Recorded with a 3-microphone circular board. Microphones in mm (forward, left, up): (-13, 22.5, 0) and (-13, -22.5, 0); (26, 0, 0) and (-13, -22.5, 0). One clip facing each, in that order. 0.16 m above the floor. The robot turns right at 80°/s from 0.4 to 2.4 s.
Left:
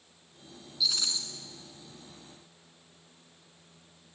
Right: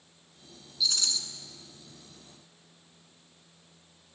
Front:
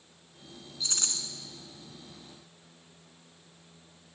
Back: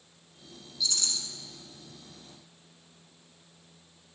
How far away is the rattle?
About 1.3 m.